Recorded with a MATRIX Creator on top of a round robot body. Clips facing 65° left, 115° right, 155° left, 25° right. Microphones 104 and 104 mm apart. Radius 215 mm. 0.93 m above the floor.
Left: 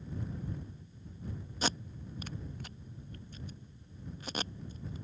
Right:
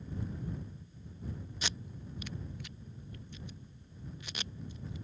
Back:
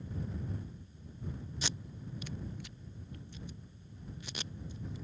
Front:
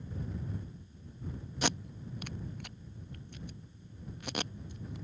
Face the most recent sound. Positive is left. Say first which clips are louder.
# left 10 dB, front 12 dB
turn(degrees=15)